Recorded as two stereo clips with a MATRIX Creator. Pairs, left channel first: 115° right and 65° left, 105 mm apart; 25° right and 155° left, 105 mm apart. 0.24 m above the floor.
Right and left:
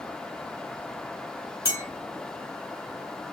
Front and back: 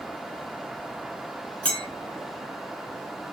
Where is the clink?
95° right, 0.9 m.